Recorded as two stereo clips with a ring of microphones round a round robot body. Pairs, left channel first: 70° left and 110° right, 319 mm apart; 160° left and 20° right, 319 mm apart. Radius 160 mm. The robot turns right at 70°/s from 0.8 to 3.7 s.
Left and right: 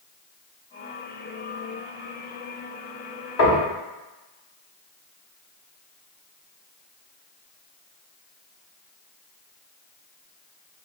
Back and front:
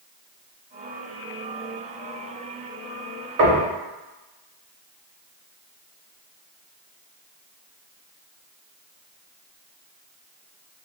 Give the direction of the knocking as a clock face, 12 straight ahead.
11 o'clock.